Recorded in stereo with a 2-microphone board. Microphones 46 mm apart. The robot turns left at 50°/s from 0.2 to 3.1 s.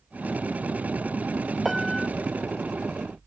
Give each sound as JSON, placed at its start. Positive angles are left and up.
{"t": 1.6, "sound": "a piano", "side_deg": -5}